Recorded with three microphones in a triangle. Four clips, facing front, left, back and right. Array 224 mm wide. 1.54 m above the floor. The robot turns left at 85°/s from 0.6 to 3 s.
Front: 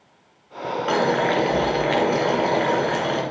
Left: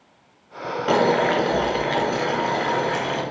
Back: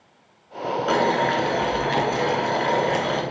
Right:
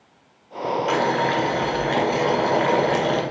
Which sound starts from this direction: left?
Boiling, at 0.9 s.